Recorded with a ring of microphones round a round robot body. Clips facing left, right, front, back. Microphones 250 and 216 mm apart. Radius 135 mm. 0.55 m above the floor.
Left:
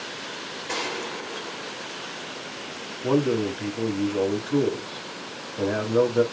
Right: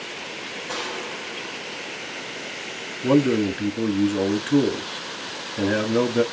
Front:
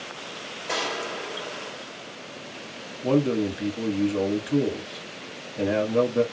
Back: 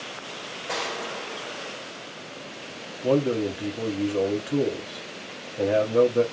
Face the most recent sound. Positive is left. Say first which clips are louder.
# right 4 dB, even
turn(degrees=-70)